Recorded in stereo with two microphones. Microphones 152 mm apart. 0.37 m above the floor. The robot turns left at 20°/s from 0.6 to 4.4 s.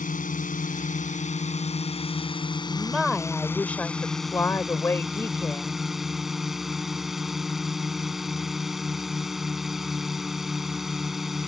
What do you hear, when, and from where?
0.0 s a drone: 75° left; by 11.5 s straight ahead
2.7 s a woman speaking: 175° right; by 5.7 s 155° left